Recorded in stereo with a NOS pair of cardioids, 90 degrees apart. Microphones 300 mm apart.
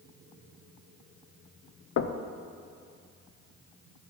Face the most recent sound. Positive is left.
turn(degrees=50)